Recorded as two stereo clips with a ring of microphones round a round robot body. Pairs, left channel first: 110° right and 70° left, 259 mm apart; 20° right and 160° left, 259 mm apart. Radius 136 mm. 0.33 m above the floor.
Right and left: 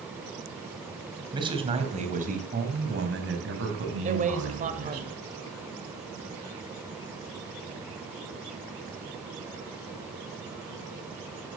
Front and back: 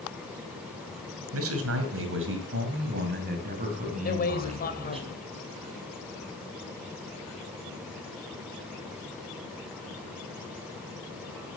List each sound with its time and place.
1.3 s a man speaking: 140° left, 2.5 m; by 5.0 s 90° left, 3.5 m
4.0 s a man speaking: 20° left, 2 m